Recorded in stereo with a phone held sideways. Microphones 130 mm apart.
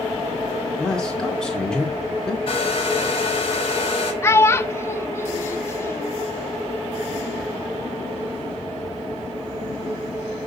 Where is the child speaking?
20° left (ahead or behind), 0.8 m.